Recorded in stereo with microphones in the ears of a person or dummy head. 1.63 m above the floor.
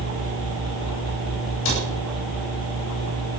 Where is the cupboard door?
70° left (ahead or behind), 8 m.